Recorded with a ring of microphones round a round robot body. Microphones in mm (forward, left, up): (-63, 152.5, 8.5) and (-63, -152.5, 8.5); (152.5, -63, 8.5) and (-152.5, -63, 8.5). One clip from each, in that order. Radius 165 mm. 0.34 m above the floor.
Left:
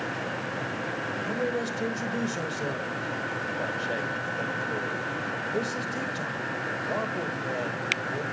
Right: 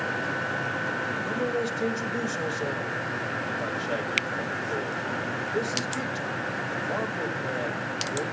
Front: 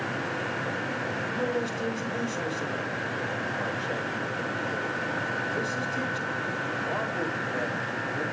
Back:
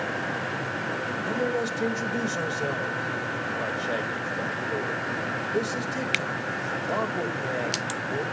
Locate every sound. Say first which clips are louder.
1.3 s a man speaking: left 1 dB, back 4 dB; 165° left, 1.9 m